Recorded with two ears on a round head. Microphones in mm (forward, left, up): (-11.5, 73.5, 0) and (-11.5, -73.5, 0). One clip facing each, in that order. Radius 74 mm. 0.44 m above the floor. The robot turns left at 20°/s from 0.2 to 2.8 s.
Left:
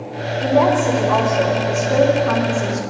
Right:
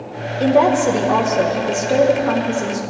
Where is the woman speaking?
110° right, 1.6 m; by 2.8 s 160° right, 1.6 m.